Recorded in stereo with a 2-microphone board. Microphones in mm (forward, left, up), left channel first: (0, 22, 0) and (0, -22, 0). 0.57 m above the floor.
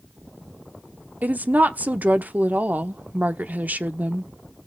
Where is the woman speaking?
40° right (ahead or behind), 0.9 m.